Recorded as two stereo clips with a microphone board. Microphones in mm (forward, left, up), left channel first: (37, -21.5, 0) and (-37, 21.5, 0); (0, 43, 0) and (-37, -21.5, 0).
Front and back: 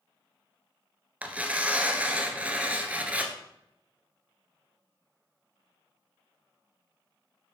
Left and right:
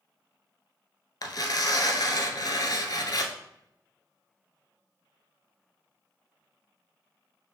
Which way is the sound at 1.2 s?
80° left.